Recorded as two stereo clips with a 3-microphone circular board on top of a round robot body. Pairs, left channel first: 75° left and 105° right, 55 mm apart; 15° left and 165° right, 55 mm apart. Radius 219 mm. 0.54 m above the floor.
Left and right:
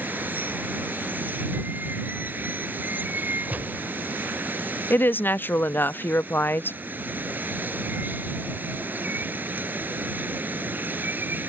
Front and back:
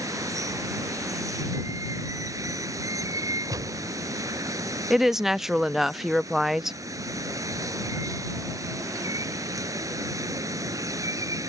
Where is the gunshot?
165° right.